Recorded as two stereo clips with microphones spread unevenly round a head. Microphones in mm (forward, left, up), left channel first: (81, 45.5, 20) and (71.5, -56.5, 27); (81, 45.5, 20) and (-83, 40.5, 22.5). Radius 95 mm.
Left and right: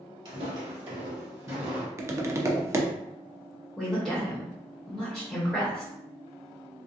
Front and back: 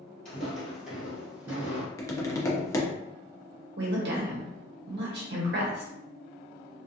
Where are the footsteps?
85° right, 1.5 m; by 1.9 s 130° right, 1.1 m.